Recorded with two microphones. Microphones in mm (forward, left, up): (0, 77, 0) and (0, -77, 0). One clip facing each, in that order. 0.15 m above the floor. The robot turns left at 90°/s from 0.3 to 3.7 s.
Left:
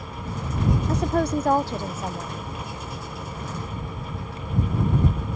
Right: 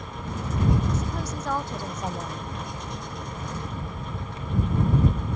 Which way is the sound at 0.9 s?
105° left.